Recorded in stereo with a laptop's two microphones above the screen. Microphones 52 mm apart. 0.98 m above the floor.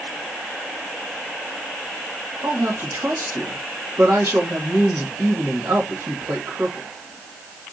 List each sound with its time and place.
2.4 s a woman speaking: 70° right (ahead or behind), 1.4 m